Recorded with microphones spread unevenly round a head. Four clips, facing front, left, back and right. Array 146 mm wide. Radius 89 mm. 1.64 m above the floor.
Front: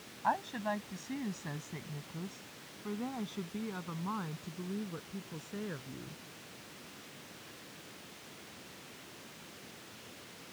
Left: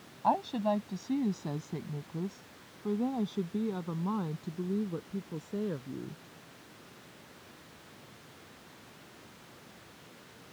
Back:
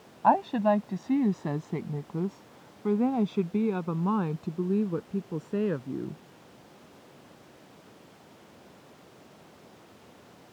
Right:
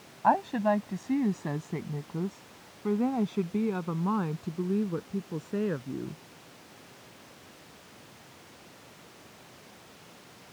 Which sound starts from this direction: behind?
A woman speaking, at 0.2 s.